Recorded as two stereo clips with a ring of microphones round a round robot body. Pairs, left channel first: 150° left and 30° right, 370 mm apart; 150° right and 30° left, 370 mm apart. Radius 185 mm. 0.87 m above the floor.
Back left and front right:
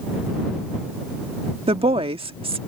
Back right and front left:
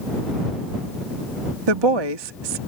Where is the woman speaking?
45° left.